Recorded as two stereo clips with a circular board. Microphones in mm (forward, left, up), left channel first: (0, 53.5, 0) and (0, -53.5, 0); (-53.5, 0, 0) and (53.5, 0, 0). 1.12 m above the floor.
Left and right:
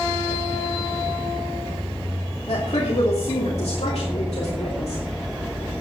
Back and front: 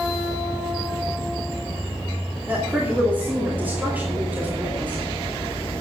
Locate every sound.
2.5 s a woman speaking: 70° left, 2.5 m